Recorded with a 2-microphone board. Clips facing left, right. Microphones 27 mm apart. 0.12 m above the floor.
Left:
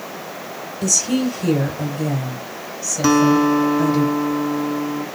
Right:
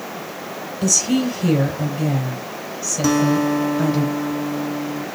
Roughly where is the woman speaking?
Centre.